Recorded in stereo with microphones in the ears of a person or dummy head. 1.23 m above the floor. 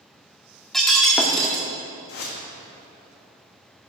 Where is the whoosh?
55° left (ahead or behind), 2 m.